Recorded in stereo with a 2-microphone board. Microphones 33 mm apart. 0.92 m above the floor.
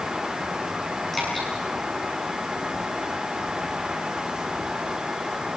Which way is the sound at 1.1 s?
10° left (ahead or behind).